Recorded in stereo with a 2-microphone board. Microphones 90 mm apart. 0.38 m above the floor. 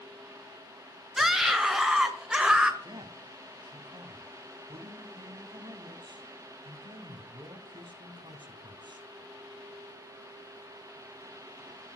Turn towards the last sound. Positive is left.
turn(degrees=-60)  # may be behind; listen again after turning